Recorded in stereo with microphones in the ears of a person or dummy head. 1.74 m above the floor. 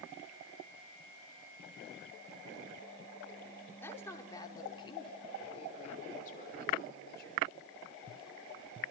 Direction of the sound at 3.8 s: 10° left (ahead or behind).